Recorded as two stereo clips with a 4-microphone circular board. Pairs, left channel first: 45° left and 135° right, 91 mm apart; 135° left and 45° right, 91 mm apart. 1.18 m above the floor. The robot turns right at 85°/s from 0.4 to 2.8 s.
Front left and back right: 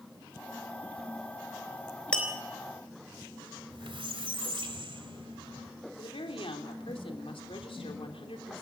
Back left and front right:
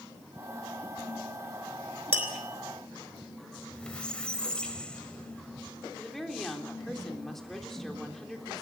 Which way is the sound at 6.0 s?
50° left.